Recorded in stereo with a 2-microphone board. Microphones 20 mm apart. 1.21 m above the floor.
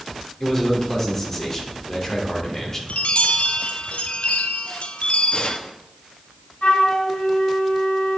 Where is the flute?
55° left (ahead or behind), 2 m.